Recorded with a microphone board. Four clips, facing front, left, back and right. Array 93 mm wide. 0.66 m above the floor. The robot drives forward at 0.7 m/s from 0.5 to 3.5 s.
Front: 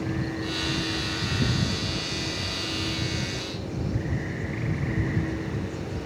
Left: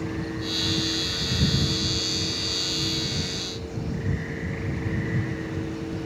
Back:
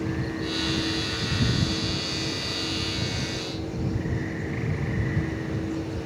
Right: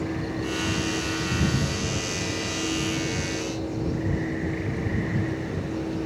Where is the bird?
I don't hear a bird.